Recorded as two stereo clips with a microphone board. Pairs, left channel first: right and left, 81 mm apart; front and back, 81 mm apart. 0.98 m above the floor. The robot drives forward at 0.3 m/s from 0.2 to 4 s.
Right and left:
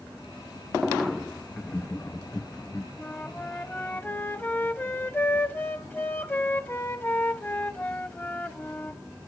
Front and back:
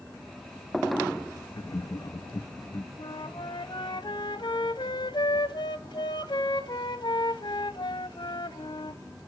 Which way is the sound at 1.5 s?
25° right.